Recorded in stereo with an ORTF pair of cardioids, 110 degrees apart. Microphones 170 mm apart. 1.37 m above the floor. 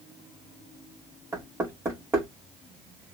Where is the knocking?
15° right, 1.9 m.